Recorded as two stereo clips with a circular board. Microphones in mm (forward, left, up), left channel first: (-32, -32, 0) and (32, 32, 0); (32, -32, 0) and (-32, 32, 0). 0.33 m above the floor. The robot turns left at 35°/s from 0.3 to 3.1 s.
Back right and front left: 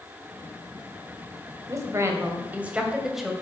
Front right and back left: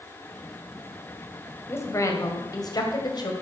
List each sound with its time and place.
1.7 s a woman speaking: 10° left, 2.0 m; by 3.3 s 40° right, 2.0 m